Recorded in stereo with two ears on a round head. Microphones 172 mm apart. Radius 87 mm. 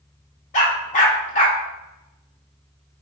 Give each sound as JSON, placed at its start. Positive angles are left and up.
{"t": 0.5, "sound": "a dog barking", "side_deg": 40, "distance_m": 0.9}